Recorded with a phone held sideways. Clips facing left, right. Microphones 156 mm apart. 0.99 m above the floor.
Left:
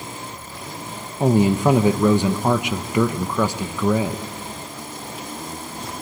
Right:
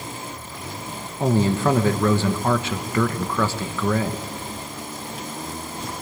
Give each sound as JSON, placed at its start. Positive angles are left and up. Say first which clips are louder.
{"t": 1.2, "sound": "a man speaking", "louder": "left 3 dB", "side_deg": 15, "distance_m": 1.0}